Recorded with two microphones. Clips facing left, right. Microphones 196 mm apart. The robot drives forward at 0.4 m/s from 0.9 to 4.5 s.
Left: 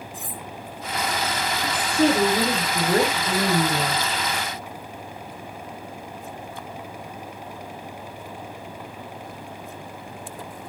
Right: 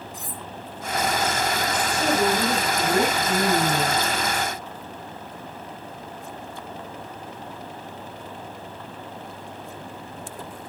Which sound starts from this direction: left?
A woman speaking, at 1.6 s.